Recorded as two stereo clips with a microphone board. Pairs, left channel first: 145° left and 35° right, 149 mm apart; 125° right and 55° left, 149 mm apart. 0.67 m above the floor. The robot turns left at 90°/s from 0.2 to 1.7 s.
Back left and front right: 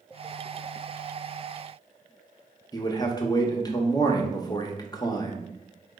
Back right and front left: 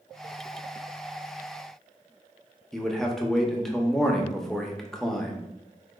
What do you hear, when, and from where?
2.7 s a man speaking: 150° left, 0.7 m